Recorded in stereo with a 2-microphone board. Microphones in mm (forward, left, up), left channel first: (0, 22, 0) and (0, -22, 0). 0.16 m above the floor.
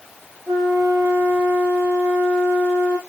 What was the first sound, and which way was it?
A flute, 50° right (ahead or behind).